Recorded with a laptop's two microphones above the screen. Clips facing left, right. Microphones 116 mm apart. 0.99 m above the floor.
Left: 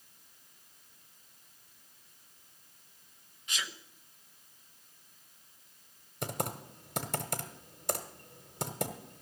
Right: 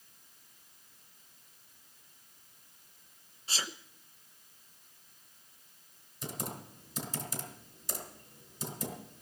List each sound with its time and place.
3.5 s a sneeze: 30° right (ahead or behind), 0.7 m
6.2 s typing on a keyboard: 60° left (ahead or behind), 1.3 m